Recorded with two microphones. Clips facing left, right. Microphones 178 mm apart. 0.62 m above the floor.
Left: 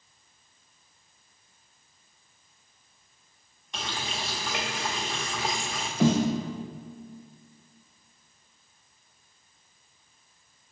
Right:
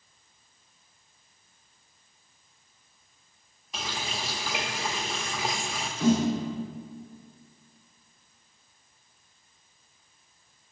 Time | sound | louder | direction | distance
3.7 | a running tap | even | 5° right (ahead or behind) | 0.8 m
6.0 | a snare drum | even | 85° left | 1.0 m